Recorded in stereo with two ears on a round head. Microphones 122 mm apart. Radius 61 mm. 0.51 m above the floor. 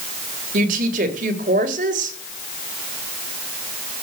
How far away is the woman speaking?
About 2.5 m.